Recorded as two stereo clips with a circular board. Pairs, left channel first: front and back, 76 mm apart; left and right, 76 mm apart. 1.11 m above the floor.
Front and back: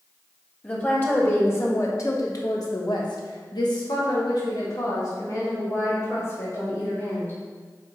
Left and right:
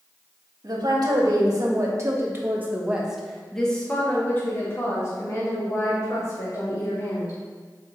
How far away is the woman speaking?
About 1.9 m.